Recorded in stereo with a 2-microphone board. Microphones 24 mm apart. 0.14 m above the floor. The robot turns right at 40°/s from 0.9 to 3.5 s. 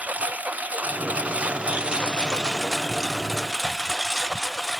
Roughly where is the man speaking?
No man speaking in this recording.